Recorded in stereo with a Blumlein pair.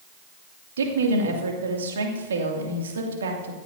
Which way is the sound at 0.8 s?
65° right.